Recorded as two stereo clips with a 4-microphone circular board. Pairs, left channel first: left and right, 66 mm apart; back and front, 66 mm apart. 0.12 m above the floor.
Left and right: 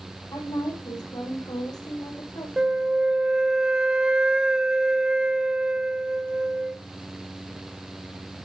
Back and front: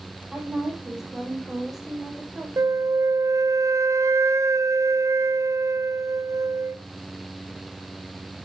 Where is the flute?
15° right, 0.5 m.